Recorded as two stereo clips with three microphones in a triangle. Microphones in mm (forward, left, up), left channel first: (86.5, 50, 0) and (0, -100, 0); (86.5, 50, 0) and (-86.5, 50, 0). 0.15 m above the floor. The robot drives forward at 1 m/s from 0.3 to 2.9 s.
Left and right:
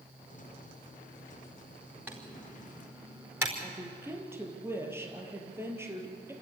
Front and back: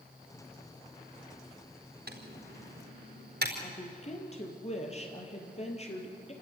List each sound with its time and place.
2.1 s typing on a keyboard: 160° left, 4 m; by 3.5 s 165° left, 4.5 m
3.6 s a woman speaking: 45° right, 4 m